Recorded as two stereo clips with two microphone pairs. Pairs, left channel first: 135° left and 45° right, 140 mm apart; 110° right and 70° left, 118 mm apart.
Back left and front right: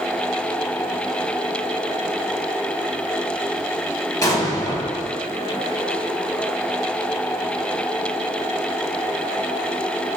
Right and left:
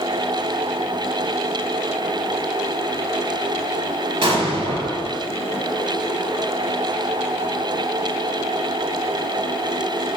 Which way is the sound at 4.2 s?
80° left.